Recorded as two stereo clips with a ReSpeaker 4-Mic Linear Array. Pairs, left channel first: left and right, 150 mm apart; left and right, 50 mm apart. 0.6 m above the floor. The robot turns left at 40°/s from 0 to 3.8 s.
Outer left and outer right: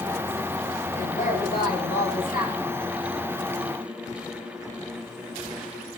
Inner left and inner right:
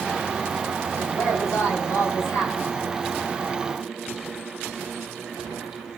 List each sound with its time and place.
1.0 s a woman speaking: 130° left, 9.5 m; by 2.7 s 60° left, 9.5 m